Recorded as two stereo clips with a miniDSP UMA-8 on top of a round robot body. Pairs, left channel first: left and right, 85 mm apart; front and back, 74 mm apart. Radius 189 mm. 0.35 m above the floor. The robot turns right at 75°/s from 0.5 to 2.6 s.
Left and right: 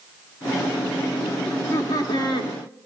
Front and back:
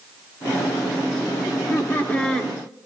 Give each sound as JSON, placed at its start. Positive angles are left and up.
{"t": 1.5, "sound": "laughter", "azimuth_deg": 15, "distance_m": 1.6}